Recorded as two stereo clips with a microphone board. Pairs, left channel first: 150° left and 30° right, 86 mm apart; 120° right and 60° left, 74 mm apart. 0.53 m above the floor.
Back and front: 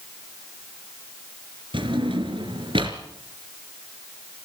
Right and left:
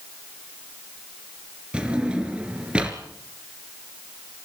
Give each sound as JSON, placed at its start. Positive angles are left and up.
{"t": 1.7, "sound": "a drawer", "azimuth_deg": -15, "distance_m": 2.5}